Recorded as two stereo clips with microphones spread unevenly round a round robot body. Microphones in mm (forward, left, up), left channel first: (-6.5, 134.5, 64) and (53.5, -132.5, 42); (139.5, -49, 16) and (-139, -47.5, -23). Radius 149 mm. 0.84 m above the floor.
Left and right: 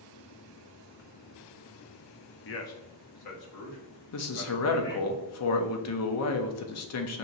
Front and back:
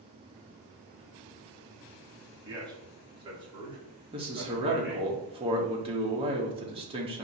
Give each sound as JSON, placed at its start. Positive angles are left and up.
{"t": 2.5, "sound": "a man speaking", "azimuth_deg": 120, "distance_m": 0.6}
{"t": 4.1, "sound": "a man speaking", "azimuth_deg": 120, "distance_m": 0.7}